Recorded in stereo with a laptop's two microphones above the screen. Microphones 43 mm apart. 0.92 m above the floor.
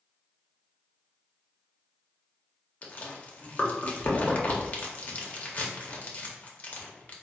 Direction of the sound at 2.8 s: 35° left (ahead or behind).